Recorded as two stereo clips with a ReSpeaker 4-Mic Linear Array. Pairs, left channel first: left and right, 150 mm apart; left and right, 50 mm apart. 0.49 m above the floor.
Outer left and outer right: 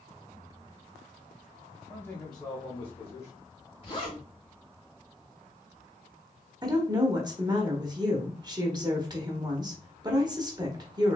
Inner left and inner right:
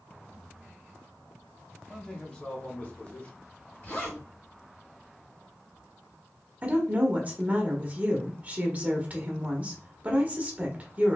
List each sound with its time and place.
1.9 s a man speaking: 10° left (ahead or behind), 1.1 m; by 3.7 s 50° left (ahead or behind), 1.6 m
3.8 s a zipper: 40° left (ahead or behind), 1.8 m
6.6 s a woman speaking: 30° right (ahead or behind), 1.0 m